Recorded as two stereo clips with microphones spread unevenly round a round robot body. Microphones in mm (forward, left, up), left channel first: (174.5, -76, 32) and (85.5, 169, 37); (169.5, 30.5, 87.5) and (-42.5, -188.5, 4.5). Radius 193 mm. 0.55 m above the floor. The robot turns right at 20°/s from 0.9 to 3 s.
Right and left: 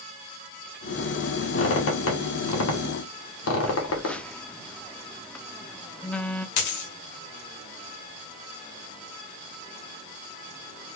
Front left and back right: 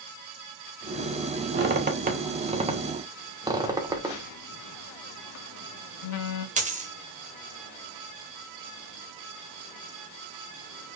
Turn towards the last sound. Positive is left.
turn(degrees=-70)